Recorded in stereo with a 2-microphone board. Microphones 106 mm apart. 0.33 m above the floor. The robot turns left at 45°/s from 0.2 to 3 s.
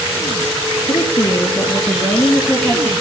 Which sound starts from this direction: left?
A woman speaking, at 0.9 s.